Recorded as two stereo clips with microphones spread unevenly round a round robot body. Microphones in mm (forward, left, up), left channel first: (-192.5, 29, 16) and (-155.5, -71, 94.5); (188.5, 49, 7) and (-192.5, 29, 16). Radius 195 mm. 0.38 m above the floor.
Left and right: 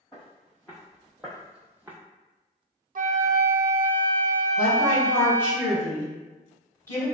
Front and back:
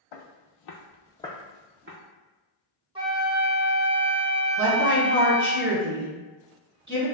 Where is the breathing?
I don't hear breathing.